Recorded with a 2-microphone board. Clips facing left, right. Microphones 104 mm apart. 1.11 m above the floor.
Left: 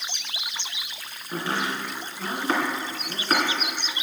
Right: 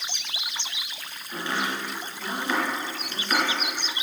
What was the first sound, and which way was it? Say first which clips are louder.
Chopping: left 1 dB; 40° left (ahead or behind).